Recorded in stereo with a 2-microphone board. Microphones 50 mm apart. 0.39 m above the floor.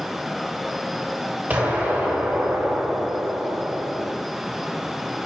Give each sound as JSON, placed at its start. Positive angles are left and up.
{"t": 1.5, "sound": "an explosion", "side_deg": -40, "distance_m": 1.9}